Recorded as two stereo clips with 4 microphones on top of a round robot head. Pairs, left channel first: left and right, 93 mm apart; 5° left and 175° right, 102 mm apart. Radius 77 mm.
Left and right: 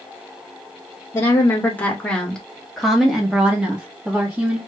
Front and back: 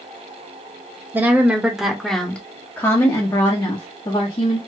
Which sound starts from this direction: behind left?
A woman speaking, at 1.1 s.